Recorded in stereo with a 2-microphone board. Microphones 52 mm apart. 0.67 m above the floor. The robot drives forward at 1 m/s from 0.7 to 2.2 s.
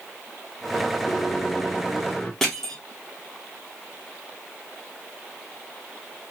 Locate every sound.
1.1 s a microwave: 60° left (ahead or behind), 0.8 m; by 2.3 s 30° left (ahead or behind), 1.4 m
2.4 s crushing: 10° left (ahead or behind), 2.0 m